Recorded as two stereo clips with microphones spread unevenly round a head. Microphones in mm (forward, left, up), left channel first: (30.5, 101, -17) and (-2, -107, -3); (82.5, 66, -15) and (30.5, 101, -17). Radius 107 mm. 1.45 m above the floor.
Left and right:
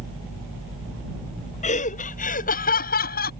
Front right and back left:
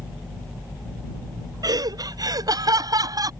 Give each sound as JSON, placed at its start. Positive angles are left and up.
{"t": 1.6, "sound": "laughter", "azimuth_deg": 140}